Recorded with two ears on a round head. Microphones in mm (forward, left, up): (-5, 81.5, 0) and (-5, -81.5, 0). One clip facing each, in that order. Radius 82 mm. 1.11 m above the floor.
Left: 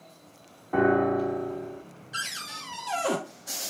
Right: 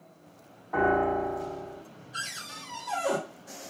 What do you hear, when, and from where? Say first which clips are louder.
0.7 s a piano: left 3 dB; 40° left (ahead or behind), 1.3 m
2.1 s a cupboard door: left 3 dB; 75° left (ahead or behind), 1.5 m